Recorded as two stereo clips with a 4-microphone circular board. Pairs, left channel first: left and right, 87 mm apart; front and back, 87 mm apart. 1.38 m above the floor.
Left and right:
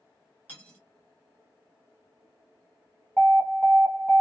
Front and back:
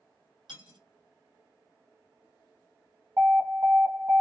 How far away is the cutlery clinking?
About 1.1 m.